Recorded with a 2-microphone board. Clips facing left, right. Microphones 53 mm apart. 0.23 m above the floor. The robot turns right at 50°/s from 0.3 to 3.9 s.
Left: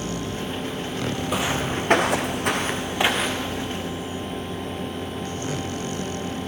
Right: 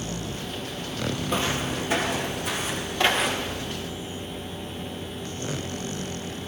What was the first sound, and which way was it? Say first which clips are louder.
Footsteps: left 2 dB; centre (ahead or behind).